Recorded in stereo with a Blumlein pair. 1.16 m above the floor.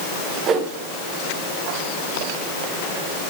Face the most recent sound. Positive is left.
turn(degrees=-25)